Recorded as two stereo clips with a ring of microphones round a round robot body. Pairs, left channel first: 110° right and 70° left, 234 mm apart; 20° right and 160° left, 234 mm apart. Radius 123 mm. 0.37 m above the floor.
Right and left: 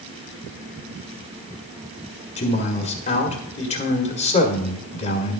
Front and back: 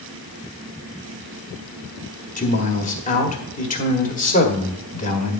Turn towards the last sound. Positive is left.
turn(degrees=-65)